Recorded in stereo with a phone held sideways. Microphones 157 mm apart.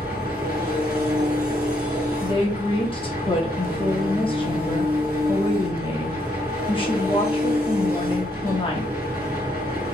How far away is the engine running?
About 1.3 m.